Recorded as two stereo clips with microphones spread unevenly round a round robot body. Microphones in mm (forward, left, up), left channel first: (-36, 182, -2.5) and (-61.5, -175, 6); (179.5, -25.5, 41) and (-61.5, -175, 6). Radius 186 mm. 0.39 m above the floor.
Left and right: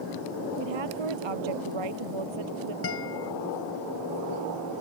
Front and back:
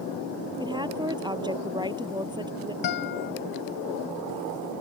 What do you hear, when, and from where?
0.6 s a woman speaking: 75° right
2.8 s a guitar: 30° left